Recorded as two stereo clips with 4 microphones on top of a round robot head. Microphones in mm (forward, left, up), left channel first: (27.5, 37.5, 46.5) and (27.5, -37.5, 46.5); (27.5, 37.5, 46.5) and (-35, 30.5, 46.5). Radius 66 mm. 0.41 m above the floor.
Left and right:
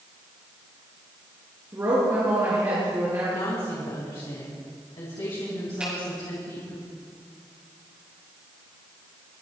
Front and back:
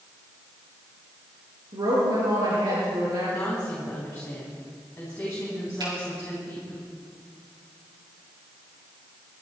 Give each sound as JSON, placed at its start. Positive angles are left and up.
{"t": 1.7, "sound": "a woman speaking", "azimuth_deg": -150, "distance_m": 7.5}
{"t": 3.3, "sound": "a woman speaking", "azimuth_deg": 70, "distance_m": 4.0}
{"t": 5.8, "sound": "a finger snap", "azimuth_deg": -165, "distance_m": 6.5}